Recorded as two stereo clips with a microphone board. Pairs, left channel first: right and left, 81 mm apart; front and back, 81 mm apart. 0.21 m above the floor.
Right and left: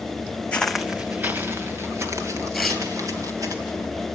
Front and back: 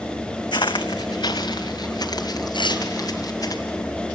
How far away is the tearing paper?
About 3 m.